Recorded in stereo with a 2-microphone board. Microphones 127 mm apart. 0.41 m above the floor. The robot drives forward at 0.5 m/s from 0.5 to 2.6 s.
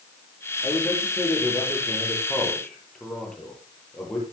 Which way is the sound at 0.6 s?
10° left (ahead or behind).